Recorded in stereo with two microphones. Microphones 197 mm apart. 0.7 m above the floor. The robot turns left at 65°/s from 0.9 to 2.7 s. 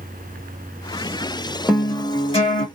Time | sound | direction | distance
1.7 | a guitar | 175° right | 1.5 m